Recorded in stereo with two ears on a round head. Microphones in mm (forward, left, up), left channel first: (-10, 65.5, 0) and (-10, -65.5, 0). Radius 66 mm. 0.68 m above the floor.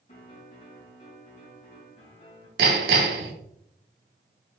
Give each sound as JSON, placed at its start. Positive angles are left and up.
{"t": 0.1, "sound": "a piano", "side_deg": 45, "distance_m": 3.0}
{"t": 2.6, "sound": "hammering", "side_deg": -80, "distance_m": 1.5}